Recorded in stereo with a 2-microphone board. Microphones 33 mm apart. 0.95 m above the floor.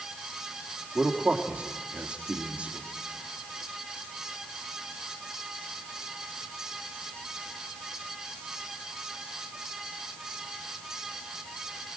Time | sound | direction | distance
0.9 | a man speaking | 35° right (ahead or behind) | 2 m